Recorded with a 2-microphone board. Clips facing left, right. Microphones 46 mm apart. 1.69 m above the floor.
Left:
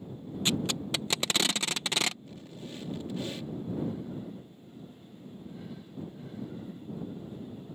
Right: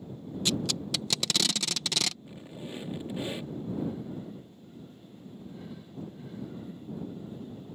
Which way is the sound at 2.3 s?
20° right (ahead or behind).